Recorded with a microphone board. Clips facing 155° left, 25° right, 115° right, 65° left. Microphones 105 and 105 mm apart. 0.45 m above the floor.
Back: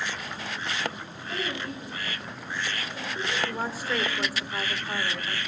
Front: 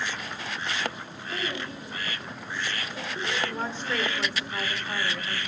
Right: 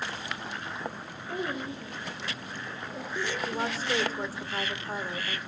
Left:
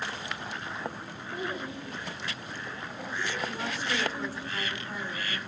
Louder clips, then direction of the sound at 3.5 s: Back 1 dB, right 3 dB; 125° right.